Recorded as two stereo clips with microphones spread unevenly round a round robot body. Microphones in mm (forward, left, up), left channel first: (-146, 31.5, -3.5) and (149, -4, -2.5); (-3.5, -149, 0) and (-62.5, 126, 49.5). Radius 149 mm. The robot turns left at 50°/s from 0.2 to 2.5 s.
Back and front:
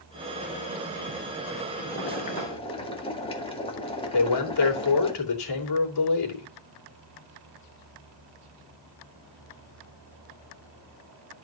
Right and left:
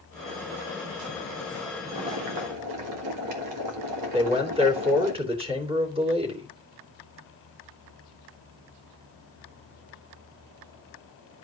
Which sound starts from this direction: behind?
A man speaking, at 4.1 s.